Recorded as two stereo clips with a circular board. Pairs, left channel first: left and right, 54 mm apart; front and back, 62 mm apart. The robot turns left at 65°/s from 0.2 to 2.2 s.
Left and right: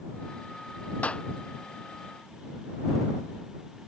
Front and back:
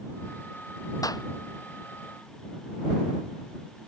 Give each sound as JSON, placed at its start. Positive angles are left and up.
{"t": 1.0, "sound": "a clap", "azimuth_deg": 25}